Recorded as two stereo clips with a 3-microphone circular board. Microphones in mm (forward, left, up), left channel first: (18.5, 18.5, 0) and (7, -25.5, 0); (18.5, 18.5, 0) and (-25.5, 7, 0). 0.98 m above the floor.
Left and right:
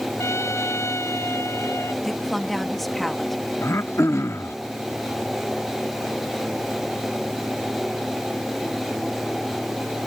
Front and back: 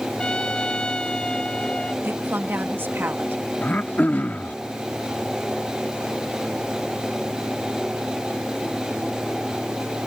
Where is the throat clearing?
70° left.